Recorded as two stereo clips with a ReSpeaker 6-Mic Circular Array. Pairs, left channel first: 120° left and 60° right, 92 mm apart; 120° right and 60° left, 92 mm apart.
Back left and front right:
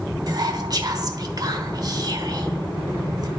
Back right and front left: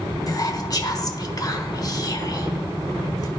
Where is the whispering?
90° right, 1.2 m.